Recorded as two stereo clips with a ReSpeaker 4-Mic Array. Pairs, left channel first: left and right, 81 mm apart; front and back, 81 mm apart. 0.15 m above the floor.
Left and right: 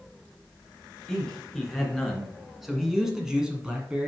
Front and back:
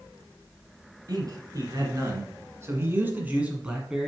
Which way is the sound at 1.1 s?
170° left.